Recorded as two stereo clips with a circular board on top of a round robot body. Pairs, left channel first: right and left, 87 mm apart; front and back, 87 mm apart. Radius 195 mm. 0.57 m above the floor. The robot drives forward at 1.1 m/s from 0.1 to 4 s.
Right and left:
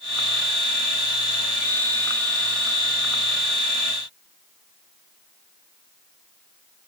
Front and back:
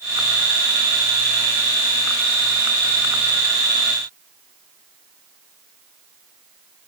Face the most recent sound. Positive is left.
No sound to turn to.